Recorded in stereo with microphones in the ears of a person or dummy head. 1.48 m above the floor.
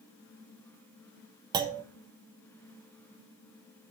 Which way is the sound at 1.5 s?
25° right (ahead or behind).